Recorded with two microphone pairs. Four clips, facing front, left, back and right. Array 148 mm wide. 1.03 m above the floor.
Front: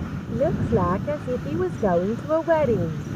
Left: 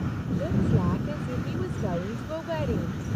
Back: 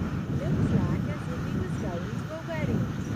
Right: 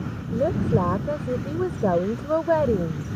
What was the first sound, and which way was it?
A woman speaking, 40° right.